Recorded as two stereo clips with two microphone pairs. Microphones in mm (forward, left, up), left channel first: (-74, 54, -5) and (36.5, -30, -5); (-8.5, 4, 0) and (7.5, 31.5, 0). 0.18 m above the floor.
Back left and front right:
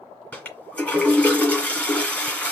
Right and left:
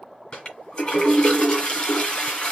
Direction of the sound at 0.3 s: 145° right.